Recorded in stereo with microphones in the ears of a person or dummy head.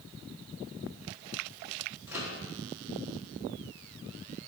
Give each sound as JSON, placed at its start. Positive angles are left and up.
{"t": 2.1, "sound": "a microwave", "side_deg": -5, "distance_m": 1.7}